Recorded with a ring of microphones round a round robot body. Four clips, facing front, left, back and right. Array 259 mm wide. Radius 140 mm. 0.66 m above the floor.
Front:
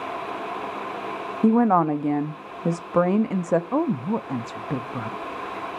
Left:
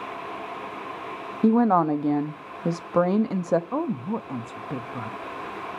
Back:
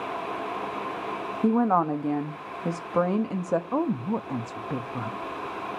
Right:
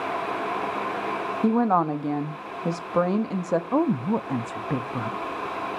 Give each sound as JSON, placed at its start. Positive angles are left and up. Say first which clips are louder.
{"t": 1.4, "sound": "a woman speaking", "louder": "left 3 dB, front 4 dB", "azimuth_deg": 35, "distance_m": 0.9}
{"t": 3.7, "sound": "a woman speaking", "louder": "right 5 dB, front 3 dB", "azimuth_deg": -55, "distance_m": 0.6}